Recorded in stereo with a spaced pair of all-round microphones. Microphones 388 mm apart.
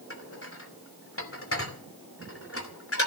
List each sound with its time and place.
0.1 s dishes clattering: 35° left (ahead or behind), 2.5 m